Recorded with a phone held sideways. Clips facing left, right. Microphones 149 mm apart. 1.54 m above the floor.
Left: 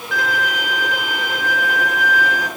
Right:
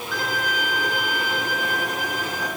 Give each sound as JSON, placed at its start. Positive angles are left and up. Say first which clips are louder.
{"t": 0.1, "sound": "a violin", "louder": "left 5 dB", "side_deg": 75, "distance_m": 2.0}